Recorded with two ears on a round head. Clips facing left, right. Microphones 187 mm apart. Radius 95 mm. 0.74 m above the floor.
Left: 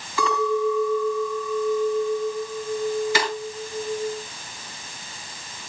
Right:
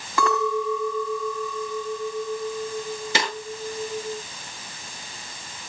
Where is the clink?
45° right (ahead or behind), 4 m.